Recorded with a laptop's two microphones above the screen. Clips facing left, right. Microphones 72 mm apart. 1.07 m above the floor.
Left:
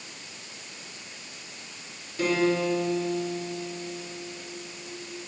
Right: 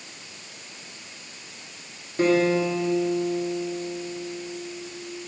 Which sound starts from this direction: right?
A guitar, at 2.2 s.